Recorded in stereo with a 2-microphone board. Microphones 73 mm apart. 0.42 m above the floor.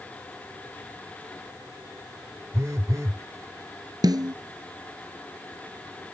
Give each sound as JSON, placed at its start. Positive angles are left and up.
{"t": 2.5, "sound": "a phone buzzing", "side_deg": -45}
{"t": 4.0, "sound": "a snare drum", "side_deg": -65}